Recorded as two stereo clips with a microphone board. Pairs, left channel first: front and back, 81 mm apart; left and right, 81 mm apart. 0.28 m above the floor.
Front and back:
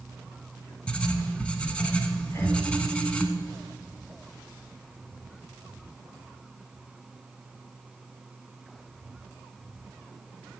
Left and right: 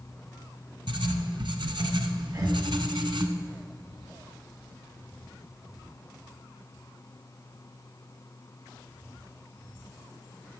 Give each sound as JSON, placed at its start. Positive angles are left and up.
{"t": 0.9, "sound": "writing", "azimuth_deg": -75, "distance_m": 0.9}
{"t": 2.3, "sound": "breathing", "azimuth_deg": -50, "distance_m": 1.9}